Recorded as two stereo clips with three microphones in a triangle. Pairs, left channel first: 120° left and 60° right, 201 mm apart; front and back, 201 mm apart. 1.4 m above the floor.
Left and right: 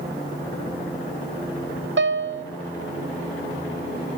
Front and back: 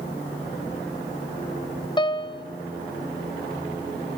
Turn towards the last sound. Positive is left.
turn(degrees=-65)